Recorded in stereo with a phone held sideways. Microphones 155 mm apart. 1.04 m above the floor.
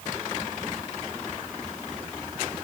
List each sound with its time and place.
Only background noise.